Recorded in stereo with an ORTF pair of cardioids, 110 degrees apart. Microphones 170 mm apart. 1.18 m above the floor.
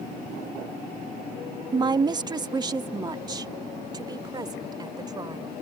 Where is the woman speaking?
25° right.